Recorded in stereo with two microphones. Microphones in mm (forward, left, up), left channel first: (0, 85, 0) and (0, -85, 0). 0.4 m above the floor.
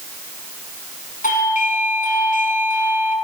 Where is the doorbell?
50° left (ahead or behind), 4.5 m.